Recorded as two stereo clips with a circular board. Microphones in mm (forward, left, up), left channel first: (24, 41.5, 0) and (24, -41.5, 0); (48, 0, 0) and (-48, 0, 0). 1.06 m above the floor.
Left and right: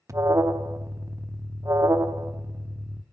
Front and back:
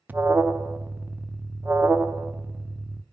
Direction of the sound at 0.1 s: 115° right.